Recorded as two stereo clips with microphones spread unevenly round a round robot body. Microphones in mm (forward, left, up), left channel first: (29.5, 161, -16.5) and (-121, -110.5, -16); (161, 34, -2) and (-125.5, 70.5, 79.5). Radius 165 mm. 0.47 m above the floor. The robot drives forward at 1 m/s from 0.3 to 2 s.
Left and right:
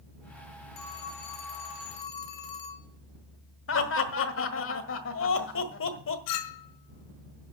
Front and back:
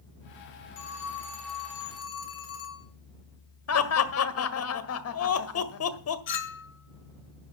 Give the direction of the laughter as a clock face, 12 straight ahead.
12 o'clock.